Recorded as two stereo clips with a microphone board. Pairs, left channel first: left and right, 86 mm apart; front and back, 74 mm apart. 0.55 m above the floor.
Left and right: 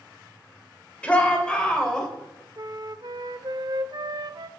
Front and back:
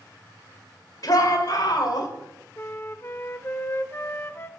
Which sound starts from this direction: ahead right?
A flute, at 2.6 s.